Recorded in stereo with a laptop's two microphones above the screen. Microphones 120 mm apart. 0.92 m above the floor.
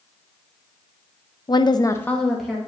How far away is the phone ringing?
No phone ringing in this recording.